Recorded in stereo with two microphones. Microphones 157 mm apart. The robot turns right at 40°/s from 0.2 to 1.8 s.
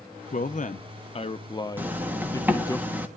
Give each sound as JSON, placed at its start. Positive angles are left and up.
{"t": 0.3, "sound": "a man speaking", "azimuth_deg": 95, "distance_m": 0.5}
{"t": 1.8, "sound": "a zipper", "side_deg": -10, "distance_m": 1.3}